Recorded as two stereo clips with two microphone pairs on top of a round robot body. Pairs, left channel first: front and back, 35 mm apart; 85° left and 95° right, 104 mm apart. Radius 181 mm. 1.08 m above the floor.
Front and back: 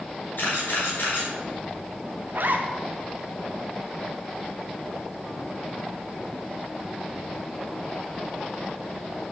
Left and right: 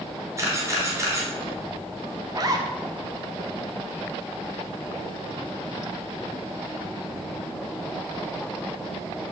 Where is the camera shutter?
30° right, 4 m.